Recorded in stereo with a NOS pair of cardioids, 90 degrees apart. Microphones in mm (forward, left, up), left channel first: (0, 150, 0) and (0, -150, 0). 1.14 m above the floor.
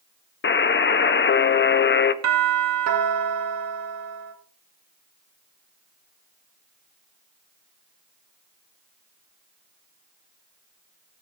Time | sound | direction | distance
0.4 | a buzzer | 35° left | 1.4 m
2.2 | a doorbell | 60° right | 4 m